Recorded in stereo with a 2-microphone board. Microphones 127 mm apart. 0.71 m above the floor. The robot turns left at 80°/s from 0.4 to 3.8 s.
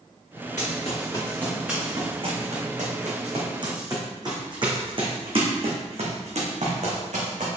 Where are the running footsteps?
70° left (ahead or behind), 3 m; by 7.5 s 70° right (ahead or behind), 2.5 m.